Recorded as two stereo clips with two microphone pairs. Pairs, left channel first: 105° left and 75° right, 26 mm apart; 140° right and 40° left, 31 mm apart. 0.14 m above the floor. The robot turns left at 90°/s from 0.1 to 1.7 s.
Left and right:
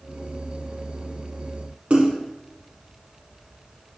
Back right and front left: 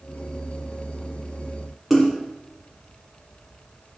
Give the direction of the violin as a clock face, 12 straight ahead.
I don't hear a violin.